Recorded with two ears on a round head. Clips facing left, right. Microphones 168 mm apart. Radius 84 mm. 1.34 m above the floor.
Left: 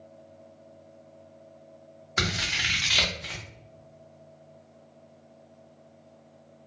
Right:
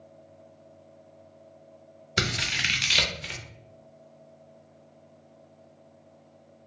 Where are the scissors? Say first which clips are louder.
Right 1 dB; 30° right (ahead or behind), 0.6 m.